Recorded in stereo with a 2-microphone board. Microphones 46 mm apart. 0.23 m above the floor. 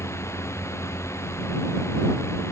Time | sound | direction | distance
0.0 | a drone | 80° left | ?